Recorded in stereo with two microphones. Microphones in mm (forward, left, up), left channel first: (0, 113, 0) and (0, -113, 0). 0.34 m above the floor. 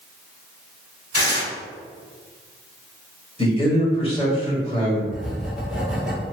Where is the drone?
I don't hear a drone.